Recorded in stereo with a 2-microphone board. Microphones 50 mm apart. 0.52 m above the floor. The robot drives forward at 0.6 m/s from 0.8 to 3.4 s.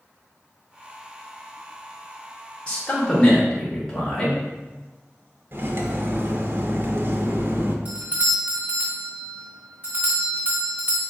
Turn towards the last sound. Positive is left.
turn(degrees=-25)  # may be behind; listen again after turning